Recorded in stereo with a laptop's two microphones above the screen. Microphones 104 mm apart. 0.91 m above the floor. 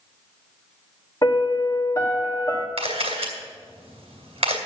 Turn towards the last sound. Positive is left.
turn(degrees=-65)  # may be behind; listen again after turning